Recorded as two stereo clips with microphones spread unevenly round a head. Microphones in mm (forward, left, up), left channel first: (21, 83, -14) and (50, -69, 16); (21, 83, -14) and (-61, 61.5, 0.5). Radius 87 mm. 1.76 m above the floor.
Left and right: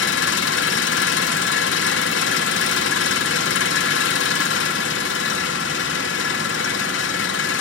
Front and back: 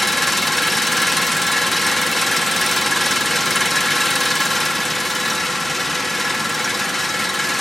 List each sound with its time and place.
0.0 s an engine running: 105° left, 2.5 m